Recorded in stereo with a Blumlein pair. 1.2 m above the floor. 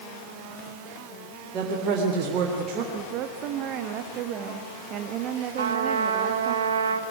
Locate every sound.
1.5 s a woman speaking: 30° right, 3.5 m
2.9 s a woman speaking: 35° right, 1.6 m
5.6 s a trumpet: 65° right, 1.6 m